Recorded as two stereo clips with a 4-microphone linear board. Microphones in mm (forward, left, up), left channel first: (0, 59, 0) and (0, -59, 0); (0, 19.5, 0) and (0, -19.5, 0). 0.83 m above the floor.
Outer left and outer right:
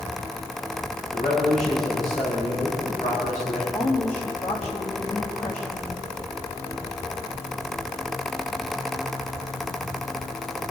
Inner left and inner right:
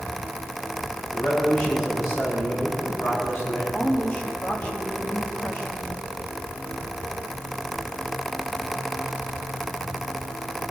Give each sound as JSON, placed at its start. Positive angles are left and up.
{"t": 1.1, "sound": "a man speaking", "side_deg": 85, "distance_m": 8.0}
{"t": 3.7, "sound": "a woman speaking", "side_deg": 65, "distance_m": 4.5}